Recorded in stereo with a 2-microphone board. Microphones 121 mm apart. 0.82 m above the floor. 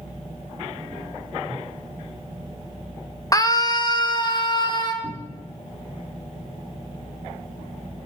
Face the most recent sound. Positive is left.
turn(degrees=30)  # may be behind; listen again after turning